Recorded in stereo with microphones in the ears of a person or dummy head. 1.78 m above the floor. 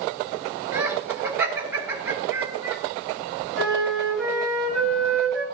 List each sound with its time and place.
0.7 s laughter: 10° right (ahead or behind), 1.9 m
3.5 s a flute: centre (ahead or behind), 3.5 m